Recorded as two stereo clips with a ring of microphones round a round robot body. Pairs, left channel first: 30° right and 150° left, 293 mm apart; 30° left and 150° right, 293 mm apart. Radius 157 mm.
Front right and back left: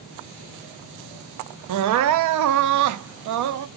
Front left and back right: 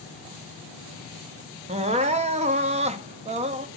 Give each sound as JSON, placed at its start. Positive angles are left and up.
{"t": 1.7, "sound": "crying", "azimuth_deg": 145, "distance_m": 0.7}